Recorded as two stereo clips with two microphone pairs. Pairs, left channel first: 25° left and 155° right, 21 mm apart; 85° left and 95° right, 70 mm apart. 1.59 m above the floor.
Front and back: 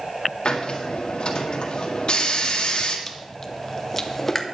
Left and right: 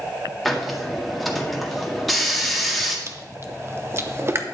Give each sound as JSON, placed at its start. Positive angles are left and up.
{"t": 0.5, "sound": "a hiss", "azimuth_deg": -5, "distance_m": 1.7}
{"t": 3.1, "sound": "chewing", "azimuth_deg": -50, "distance_m": 0.9}